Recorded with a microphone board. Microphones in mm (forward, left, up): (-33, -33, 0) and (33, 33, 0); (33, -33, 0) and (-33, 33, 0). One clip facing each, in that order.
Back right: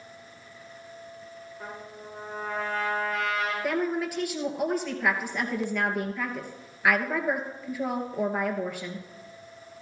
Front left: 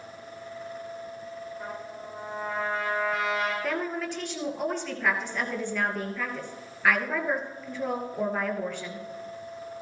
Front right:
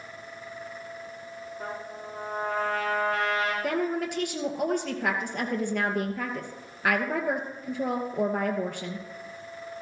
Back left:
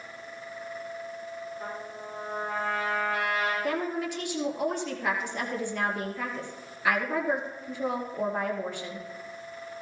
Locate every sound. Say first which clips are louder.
1.6 s a trumpet: front left 3 dB, front right 1 dB; 45° right, 6 m
3.6 s a woman speaking: back right 3 dB, front right 2 dB; 55° right, 2 m